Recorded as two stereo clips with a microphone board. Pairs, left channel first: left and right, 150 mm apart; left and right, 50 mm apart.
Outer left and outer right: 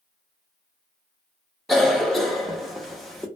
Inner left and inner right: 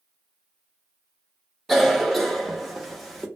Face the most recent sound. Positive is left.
turn(degrees=0)  # may be behind; listen again after turning